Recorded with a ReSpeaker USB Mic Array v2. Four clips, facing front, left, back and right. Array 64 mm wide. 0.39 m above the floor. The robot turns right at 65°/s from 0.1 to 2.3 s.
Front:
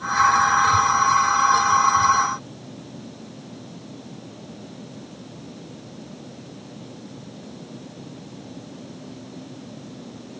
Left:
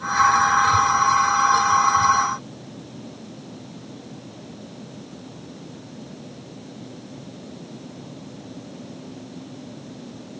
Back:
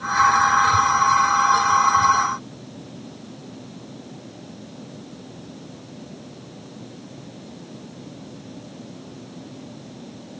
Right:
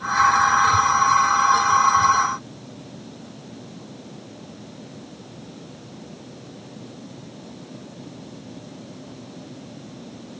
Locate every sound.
Only background noise.